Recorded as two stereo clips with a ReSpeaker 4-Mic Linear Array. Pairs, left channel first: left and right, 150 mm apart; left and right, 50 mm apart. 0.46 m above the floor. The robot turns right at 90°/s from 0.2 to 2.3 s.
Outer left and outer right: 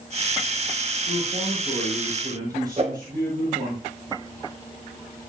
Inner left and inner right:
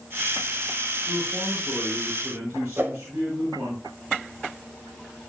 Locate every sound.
1.1 s a man speaking: 160° left, 7 m; by 3.8 s 90° right, 7 m
2.8 s a whoosh: 45° right (ahead or behind), 1.2 m